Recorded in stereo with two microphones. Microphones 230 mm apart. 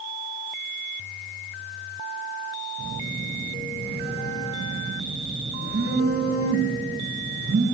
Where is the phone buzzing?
80° right, 4 m.